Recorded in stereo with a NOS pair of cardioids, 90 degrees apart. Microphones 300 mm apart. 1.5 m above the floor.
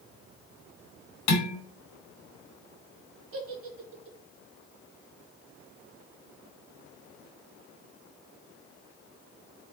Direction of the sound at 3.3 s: 45° right.